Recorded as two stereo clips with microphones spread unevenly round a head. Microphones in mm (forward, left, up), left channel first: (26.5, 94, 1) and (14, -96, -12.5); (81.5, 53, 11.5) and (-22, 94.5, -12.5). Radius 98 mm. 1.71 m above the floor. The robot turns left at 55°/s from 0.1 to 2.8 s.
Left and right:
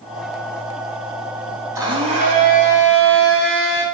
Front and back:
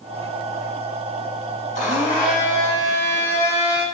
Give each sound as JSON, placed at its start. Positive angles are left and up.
{"t": 1.8, "sound": "a blender", "azimuth_deg": -20, "distance_m": 4.0}